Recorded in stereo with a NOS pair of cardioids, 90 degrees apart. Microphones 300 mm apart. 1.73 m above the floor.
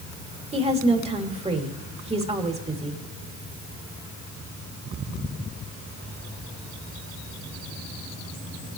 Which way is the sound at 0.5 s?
20° right.